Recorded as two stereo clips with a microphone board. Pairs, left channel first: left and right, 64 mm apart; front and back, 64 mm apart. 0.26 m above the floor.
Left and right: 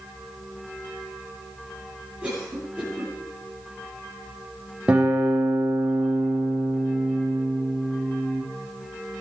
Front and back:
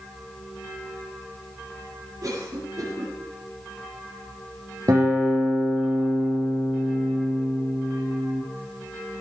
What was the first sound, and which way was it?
A cough, 160° right.